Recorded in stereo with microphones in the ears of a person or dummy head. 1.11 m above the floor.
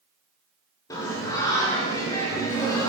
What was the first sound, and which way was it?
Singing, 20° left (ahead or behind).